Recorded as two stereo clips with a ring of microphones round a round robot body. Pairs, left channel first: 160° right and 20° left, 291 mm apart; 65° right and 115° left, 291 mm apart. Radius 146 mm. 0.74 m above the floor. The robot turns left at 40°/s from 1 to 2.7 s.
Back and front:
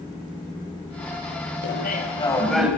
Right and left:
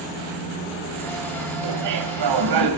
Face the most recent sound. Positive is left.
turn(degrees=105)